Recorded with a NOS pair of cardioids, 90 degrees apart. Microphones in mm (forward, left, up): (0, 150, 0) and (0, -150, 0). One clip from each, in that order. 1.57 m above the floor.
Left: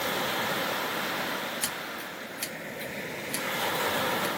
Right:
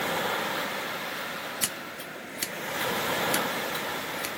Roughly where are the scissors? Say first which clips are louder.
Even; ahead right.